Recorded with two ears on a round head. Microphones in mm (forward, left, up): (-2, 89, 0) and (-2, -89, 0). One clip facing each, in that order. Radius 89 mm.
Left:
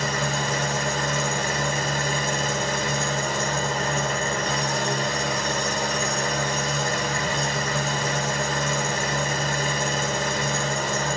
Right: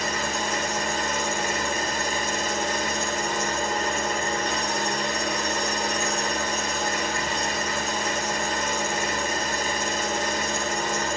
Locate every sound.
0.0 s an engine running: 60° left (ahead or behind), 1.3 m